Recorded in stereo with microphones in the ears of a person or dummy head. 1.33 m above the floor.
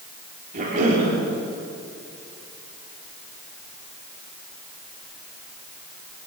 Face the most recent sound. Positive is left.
turn(degrees=-45)  # may be behind; listen again after turning